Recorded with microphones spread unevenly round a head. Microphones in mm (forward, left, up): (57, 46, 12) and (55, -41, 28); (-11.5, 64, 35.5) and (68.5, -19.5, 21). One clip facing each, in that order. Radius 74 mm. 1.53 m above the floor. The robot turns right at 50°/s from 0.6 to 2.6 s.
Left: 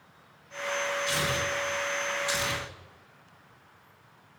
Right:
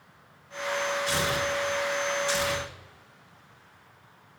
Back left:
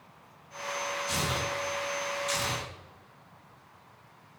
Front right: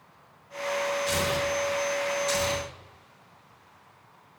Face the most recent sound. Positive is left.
turn(degrees=25)